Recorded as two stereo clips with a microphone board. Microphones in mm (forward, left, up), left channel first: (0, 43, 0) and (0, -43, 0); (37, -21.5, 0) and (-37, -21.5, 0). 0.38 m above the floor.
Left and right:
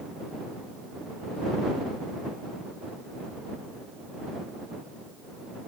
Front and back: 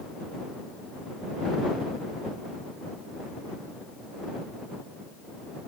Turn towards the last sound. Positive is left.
No sound to turn to.